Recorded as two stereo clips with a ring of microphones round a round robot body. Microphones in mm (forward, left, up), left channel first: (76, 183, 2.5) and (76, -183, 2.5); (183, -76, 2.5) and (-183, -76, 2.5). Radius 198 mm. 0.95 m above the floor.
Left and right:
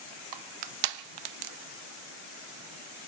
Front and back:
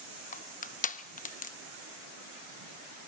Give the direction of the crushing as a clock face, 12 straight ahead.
2 o'clock.